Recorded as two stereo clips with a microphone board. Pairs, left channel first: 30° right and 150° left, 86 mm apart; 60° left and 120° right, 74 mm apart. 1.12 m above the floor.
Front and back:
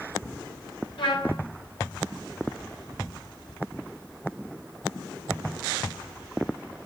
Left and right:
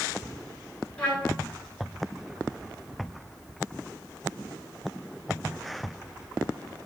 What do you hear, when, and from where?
1.0 s a trumpet: 15° right, 4.5 m